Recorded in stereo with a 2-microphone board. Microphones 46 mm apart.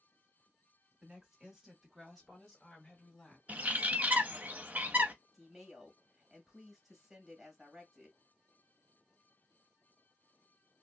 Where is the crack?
I don't hear a crack.